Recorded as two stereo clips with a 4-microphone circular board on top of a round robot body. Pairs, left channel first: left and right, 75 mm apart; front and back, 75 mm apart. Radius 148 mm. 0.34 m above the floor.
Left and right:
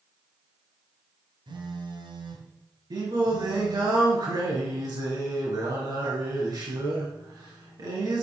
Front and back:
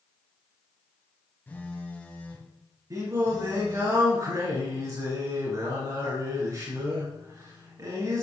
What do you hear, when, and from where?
1.5 s a phone buzzing: 70° right, 2 m
2.9 s singing: 130° right, 3.5 m